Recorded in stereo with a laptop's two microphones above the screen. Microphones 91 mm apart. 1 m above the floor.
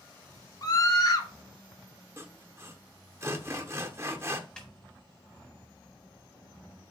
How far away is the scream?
About 2 m.